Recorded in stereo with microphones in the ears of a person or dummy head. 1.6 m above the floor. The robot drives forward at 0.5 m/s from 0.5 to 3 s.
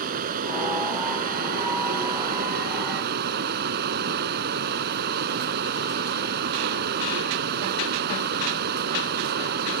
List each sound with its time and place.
0.0 s running water: 50° right (ahead or behind); by 9.8 s 55° right (ahead or behind)